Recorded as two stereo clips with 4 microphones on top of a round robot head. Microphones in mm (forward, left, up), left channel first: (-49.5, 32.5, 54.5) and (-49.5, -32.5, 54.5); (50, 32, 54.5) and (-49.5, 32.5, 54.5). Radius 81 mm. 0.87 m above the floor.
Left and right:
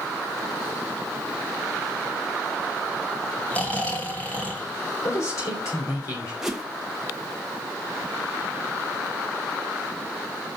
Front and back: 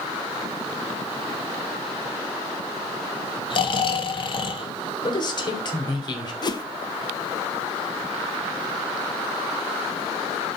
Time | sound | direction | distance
3.5 | snoring | 25° left | 1.8 m
5.0 | a man speaking | 40° left | 3 m
6.4 | a whoosh | 5° right | 1.1 m